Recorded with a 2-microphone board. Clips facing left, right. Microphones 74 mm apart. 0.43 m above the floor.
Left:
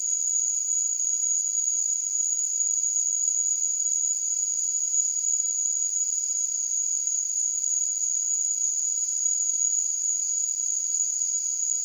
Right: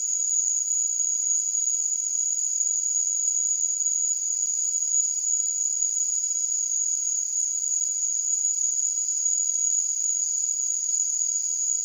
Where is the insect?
20° right (ahead or behind), 7.5 m.